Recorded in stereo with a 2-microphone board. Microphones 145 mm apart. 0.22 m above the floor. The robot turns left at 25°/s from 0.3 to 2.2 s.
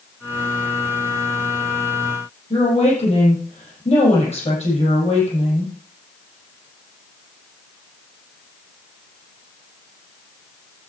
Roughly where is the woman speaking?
Left.